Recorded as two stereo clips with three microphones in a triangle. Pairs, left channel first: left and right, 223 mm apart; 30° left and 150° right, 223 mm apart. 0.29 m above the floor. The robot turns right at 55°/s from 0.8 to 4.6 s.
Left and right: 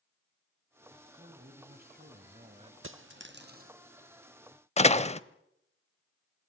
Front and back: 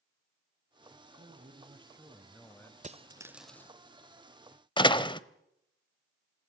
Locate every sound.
1.2 s a man speaking: 125° right, 1.9 m; by 2.7 s 40° right, 1.9 m
2.8 s a dropped coin: 95° right, 0.7 m; by 3.7 s 45° right, 0.7 m
4.8 s a door slam: 75° left, 0.7 m